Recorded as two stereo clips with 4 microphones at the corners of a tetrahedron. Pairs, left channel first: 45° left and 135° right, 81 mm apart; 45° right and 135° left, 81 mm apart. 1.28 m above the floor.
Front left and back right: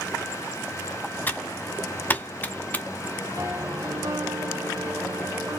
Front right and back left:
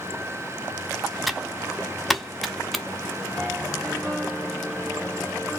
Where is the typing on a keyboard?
45° left, 0.8 m.